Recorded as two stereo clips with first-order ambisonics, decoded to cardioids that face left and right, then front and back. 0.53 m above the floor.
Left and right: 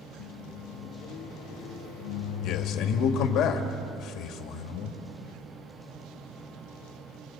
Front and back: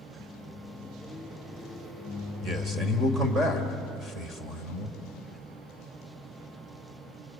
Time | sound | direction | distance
0.2 | a microwave | 85° left | 5.5 m
2.4 | a man speaking | 115° left | 2.0 m